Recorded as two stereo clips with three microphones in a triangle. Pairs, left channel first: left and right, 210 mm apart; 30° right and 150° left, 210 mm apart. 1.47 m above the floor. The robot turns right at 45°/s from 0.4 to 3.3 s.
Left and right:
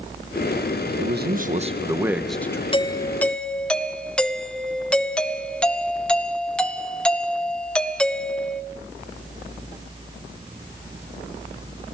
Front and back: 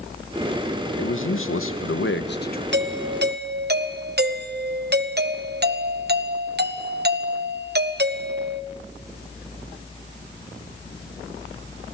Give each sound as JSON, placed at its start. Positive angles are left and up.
{"t": 1.0, "sound": "a man speaking", "azimuth_deg": -60, "distance_m": 1.2}
{"t": 2.7, "sound": "a doorbell", "azimuth_deg": 150, "distance_m": 1.1}